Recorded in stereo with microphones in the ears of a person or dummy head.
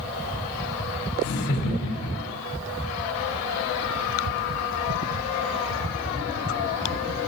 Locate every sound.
1.2 s laughter: 70° left (ahead or behind), 3 m; by 2.4 s 55° left (ahead or behind), 3 m